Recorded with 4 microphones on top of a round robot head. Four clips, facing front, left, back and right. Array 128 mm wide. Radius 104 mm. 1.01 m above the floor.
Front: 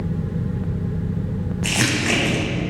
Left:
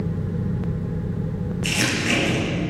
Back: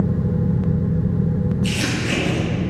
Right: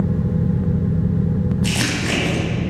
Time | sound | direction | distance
1.6 | crumpling | 35° right | 2.5 m